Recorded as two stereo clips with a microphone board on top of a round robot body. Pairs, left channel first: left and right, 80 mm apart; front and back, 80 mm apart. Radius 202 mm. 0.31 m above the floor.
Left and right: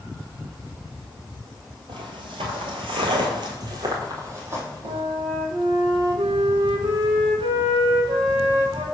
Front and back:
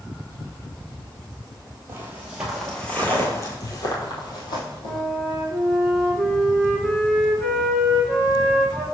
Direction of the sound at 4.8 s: 80° right.